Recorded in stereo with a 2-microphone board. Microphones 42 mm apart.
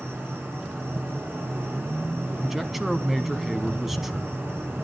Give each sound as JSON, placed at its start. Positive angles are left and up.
{"t": 0.0, "sound": "an insect", "side_deg": -50, "distance_m": 8.0}
{"t": 2.4, "sound": "a man speaking", "side_deg": -5, "distance_m": 1.1}